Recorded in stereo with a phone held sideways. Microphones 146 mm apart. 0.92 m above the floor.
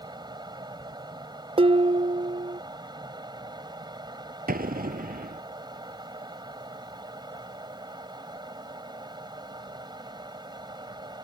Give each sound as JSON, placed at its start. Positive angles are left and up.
{"t": 0.0, "sound": "a fan", "side_deg": -30}
{"t": 1.6, "sound": "dishes clattering", "side_deg": -35}
{"t": 4.5, "sound": "an explosion", "side_deg": -85}